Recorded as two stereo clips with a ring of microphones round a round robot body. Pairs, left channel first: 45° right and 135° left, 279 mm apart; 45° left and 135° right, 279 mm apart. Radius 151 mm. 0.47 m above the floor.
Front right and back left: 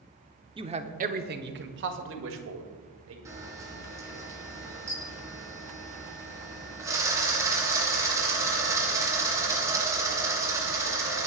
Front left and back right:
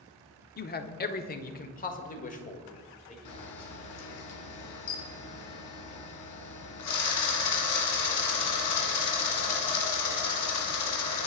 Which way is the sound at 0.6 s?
75° left.